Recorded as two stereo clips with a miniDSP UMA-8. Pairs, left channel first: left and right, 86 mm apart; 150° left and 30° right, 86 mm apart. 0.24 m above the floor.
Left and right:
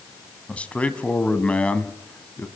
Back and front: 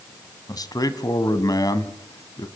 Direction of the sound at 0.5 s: 160° left.